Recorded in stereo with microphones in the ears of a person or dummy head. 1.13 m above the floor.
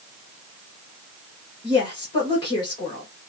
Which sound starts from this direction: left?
A woman speaking, at 1.6 s.